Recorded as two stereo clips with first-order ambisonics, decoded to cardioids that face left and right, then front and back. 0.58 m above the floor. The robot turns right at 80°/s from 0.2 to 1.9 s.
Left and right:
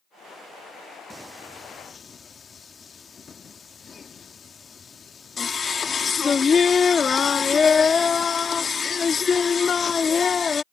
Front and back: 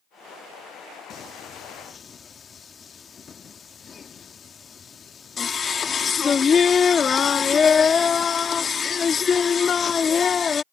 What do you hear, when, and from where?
1.1 s singing: 20° right; by 10.6 s 45° left